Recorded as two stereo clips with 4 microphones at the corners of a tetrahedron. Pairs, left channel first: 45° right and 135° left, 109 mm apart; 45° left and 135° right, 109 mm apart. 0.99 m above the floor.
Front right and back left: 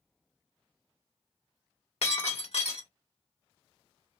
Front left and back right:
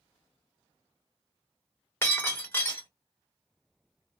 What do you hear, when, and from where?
2.0 s breaking glass: 25° right, 1.8 m